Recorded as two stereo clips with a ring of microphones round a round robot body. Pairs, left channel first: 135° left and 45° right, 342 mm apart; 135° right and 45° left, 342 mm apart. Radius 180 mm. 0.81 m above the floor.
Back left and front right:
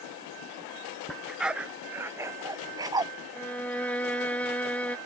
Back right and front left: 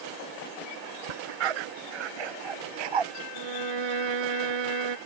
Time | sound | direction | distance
1.1 | a dog barking | 45° left | ?
3.3 | a violin | 50° left | ?